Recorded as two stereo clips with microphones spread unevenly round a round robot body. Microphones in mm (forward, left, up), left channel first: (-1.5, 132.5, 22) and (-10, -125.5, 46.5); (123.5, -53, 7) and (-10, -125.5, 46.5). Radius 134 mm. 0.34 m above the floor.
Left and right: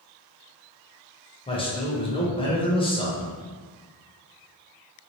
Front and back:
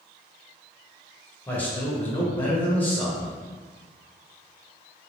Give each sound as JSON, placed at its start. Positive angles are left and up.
{"t": 1.5, "sound": "a man speaking", "azimuth_deg": 60, "distance_m": 0.9}